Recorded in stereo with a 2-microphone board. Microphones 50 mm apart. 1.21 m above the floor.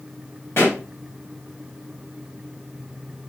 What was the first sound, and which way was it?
A pop, 55° left (ahead or behind).